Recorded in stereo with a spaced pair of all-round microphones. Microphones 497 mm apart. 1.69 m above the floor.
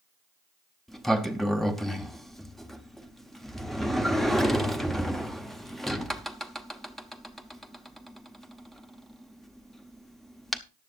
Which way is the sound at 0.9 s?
Centre (ahead or behind).